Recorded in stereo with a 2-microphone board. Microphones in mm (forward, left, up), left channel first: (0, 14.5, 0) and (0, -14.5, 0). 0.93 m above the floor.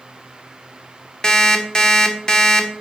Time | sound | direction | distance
1.2 | an alarm clock | 35° left (ahead or behind) | 1.3 m